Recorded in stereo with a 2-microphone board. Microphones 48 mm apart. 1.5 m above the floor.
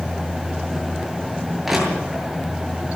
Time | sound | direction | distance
1.6 | crushing | 5° right (ahead or behind) | 8 m